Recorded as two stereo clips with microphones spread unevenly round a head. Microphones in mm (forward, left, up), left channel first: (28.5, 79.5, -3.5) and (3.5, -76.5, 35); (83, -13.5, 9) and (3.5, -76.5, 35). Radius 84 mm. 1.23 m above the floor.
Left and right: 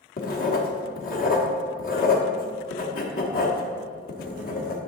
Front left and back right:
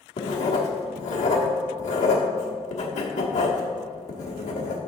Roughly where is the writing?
Ahead left.